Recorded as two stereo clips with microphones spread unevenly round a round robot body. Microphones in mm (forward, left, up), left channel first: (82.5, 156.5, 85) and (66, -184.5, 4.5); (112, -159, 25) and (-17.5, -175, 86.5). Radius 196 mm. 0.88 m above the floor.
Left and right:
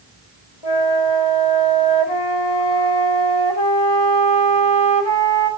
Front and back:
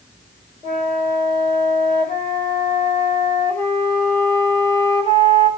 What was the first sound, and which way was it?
A flute, 110° left.